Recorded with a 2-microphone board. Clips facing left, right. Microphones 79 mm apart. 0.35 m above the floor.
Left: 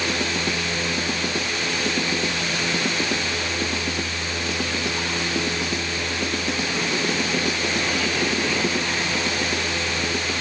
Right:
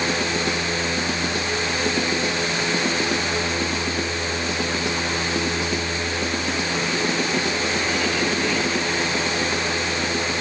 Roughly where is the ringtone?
I don't hear a ringtone.